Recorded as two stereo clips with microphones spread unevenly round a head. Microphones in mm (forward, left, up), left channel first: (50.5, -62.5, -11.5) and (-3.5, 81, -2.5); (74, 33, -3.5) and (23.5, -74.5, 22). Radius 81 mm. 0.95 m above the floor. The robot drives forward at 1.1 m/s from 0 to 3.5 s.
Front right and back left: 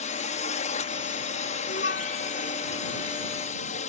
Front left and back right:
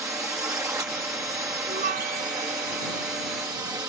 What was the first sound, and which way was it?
A drone, 50° right.